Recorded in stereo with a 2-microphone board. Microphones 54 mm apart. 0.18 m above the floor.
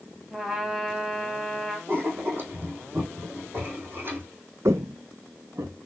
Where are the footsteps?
60° right (ahead or behind), 0.6 m.